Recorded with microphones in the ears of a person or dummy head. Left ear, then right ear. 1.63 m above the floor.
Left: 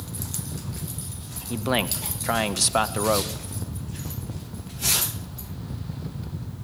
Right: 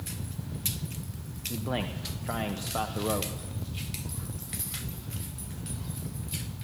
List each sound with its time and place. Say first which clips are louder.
1.5 s a man speaking: left 9 dB; 70° left (ahead or behind), 1.1 m